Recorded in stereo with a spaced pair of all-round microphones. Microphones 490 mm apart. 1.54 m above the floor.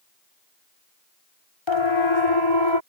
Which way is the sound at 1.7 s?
65° left (ahead or behind).